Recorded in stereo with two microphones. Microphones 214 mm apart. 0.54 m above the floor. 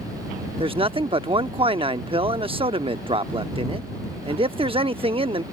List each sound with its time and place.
0.6 s a man speaking: 25° right (ahead or behind)